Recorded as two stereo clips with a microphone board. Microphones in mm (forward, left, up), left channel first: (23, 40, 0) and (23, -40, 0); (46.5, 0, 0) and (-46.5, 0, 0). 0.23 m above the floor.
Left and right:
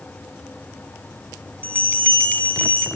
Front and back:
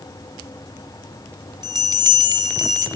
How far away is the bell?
About 1.2 m.